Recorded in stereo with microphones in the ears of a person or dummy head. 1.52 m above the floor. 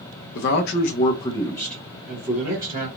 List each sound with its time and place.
0.3 s a man speaking: 65° left (ahead or behind), 0.8 m; by 2.9 s 15° right (ahead or behind), 1.4 m